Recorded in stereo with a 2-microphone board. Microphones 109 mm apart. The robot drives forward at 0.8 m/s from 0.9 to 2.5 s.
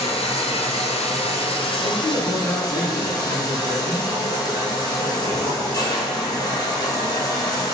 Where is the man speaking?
15° left (ahead or behind), 1.3 m; by 4.1 s 10° left (ahead or behind), 1.7 m.